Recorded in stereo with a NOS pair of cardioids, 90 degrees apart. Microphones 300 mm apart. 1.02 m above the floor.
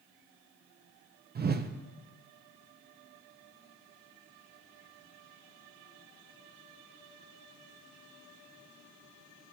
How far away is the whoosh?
About 0.8 m.